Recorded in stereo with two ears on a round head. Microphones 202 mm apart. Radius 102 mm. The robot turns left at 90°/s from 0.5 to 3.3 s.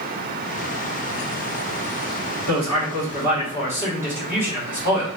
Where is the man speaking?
95° right, 1.7 m; by 5.1 s 170° right, 1.7 m.